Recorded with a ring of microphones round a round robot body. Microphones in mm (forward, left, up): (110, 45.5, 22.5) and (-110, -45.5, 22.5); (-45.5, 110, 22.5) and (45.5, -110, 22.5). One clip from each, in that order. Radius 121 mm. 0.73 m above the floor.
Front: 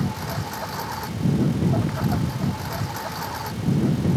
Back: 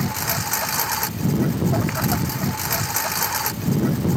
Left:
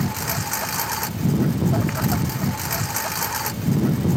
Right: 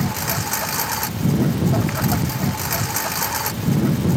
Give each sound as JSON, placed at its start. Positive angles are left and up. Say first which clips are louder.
{"t": 0.0, "sound": "a lawn mower", "louder": "back 5 dB, right 2 dB", "azimuth_deg": -155}